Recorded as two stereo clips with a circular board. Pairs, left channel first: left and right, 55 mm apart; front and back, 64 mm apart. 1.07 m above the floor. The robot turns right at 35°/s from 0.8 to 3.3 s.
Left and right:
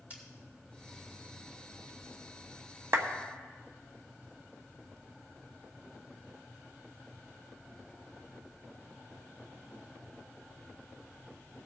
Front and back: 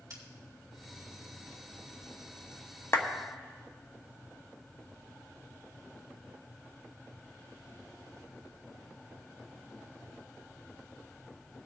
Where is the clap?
50° right, 1.0 m; by 3.1 s 45° right, 1.0 m.